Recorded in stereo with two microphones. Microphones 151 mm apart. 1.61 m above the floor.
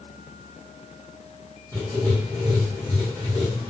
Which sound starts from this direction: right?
Writing, at 1.7 s.